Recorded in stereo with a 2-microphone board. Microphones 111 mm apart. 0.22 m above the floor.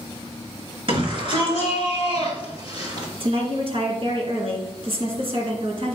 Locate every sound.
0.9 s a shout: 50° right (ahead or behind), 3.5 m; by 3.1 s 40° right (ahead or behind), 4.5 m
3.2 s a woman speaking: 60° right (ahead or behind), 2 m